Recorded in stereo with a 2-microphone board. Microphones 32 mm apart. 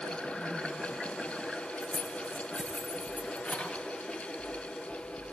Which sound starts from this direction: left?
Keys jangling, at 1.8 s.